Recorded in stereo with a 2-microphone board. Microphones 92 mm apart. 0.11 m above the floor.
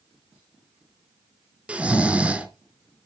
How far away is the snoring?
About 1.7 m.